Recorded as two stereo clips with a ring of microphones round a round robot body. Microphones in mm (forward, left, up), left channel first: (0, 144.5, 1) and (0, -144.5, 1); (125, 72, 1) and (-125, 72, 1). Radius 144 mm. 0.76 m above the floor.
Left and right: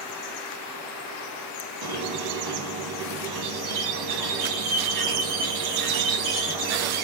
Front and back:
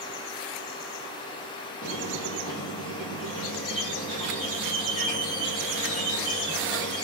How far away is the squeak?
About 1.2 m.